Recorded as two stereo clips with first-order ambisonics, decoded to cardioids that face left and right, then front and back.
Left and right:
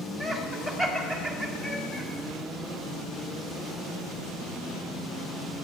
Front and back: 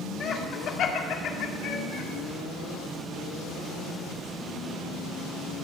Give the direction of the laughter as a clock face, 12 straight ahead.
12 o'clock.